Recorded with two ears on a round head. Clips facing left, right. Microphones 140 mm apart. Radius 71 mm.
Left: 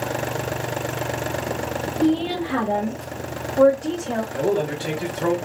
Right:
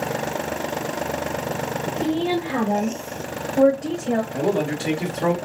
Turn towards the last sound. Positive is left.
turn(degrees=-55)  # may be behind; listen again after turning